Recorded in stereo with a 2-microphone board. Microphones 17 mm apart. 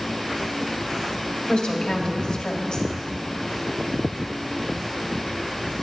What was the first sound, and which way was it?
A woman speaking, 60° left (ahead or behind).